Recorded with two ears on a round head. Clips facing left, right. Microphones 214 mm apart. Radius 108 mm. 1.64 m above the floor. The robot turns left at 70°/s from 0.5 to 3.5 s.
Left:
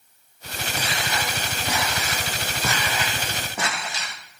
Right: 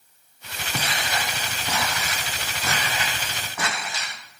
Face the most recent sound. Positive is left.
turn(degrees=20)  # may be behind; listen again after turning